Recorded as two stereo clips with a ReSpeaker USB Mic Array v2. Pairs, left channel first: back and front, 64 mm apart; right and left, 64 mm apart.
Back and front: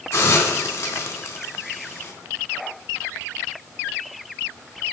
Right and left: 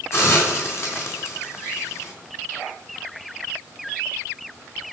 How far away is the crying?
I don't hear crying.